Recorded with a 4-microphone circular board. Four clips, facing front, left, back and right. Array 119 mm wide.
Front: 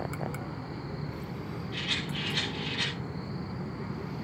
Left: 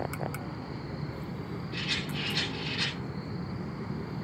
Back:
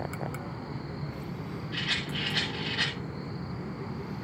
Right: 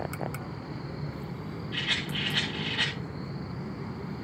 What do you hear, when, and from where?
1.7 s a rattle: 150° right, 8 m